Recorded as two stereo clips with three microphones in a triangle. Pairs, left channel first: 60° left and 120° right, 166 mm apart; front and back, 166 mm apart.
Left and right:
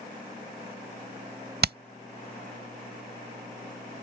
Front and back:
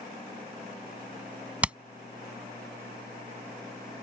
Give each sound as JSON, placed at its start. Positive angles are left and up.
{"t": 1.6, "sound": "hammering", "azimuth_deg": -100}